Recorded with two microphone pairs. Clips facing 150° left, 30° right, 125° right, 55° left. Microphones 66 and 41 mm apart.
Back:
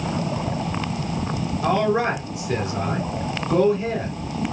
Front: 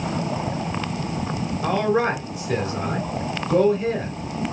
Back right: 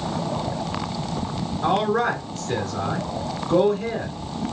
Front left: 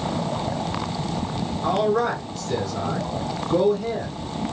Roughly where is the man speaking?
Behind right.